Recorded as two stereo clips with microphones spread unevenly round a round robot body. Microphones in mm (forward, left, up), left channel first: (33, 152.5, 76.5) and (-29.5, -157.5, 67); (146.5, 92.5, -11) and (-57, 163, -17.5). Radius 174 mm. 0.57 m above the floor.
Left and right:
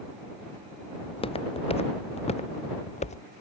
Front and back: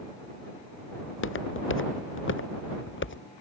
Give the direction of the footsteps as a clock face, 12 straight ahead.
12 o'clock.